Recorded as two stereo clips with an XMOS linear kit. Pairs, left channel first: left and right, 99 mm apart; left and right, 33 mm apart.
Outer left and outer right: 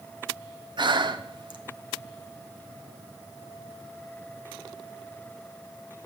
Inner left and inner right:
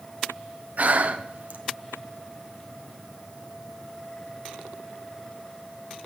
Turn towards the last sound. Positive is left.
turn(degrees=-50)  # may be behind; listen again after turning